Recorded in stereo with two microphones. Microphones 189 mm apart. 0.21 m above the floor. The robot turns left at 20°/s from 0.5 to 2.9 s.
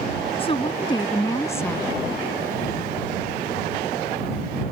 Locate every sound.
0.4 s a woman speaking: 30° left (ahead or behind); by 1.9 s 10° left (ahead or behind)